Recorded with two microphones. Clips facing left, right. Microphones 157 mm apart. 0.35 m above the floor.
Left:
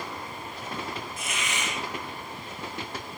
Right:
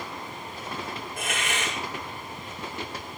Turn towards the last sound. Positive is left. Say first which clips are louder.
# right 2 dB
turn(degrees=-55)  # may be behind; listen again after turning